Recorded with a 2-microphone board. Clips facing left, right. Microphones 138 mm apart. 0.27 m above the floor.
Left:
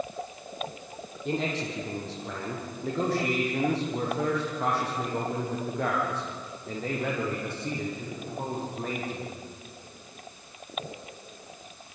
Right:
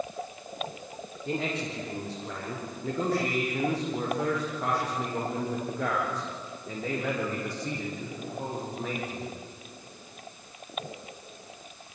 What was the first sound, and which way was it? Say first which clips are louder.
A man speaking: left 2 dB; 85° left.